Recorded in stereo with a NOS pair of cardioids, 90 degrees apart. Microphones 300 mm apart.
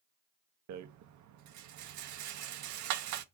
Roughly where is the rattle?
Right.